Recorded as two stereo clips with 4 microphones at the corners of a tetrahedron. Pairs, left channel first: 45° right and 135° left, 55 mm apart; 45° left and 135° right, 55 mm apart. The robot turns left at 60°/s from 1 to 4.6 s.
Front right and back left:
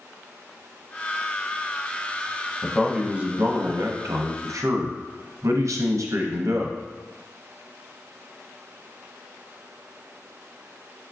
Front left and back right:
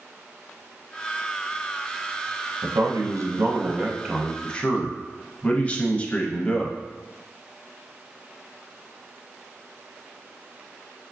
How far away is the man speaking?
About 0.5 m.